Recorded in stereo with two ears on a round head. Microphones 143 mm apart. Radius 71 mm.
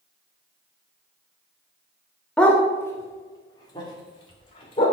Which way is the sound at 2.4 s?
5° left (ahead or behind).